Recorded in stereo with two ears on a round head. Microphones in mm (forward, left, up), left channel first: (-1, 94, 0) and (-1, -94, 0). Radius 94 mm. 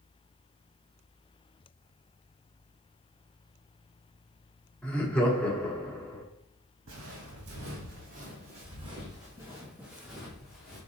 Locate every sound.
4.8 s laughter: 5° left (ahead or behind), 0.8 m
6.9 s footsteps: 70° right (ahead or behind), 1.4 m; by 10.8 s centre (ahead or behind), 2.5 m